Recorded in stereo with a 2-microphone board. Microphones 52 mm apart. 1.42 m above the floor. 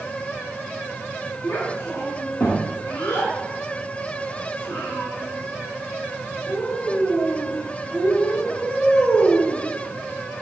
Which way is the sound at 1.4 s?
65° left (ahead or behind).